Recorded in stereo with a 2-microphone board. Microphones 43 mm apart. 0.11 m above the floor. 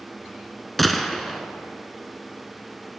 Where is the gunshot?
Centre (ahead or behind), 0.5 m.